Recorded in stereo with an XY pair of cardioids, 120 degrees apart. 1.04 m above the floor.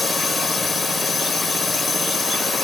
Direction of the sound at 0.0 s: 25° left.